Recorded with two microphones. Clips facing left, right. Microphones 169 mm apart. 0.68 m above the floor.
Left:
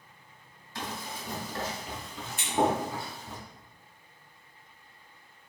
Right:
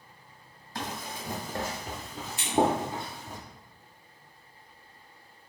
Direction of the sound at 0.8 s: 45° right (ahead or behind).